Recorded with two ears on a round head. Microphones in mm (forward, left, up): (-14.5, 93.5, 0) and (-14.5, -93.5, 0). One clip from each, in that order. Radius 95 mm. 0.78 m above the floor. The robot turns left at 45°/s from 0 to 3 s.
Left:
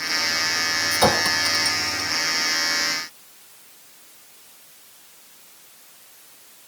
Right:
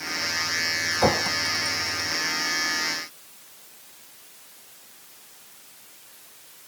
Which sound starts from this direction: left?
A clink, at 0.9 s.